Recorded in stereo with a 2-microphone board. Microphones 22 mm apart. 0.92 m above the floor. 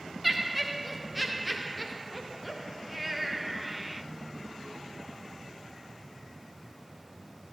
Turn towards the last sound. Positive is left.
turn(degrees=-5)  # may be behind; listen again after turning